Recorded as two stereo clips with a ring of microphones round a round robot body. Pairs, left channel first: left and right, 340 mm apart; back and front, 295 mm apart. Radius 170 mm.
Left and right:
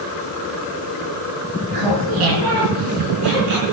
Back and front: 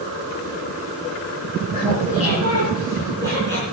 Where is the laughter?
110° right, 5.5 m; by 3.6 s 95° right, 5.5 m.